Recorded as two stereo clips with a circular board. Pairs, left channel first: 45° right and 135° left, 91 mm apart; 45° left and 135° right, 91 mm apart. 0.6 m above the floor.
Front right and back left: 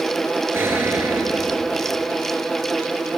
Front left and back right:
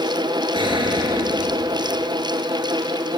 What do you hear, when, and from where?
0.5 s an explosion: 160° right, 5 m